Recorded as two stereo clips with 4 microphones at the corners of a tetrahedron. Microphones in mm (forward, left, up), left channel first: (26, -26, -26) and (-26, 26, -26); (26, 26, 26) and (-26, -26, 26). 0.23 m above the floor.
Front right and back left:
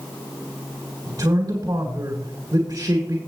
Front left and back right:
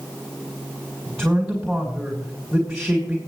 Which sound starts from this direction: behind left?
A man speaking, at 1.1 s.